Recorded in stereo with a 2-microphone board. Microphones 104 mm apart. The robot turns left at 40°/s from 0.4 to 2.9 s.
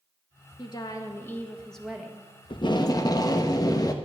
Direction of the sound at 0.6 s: 55° left.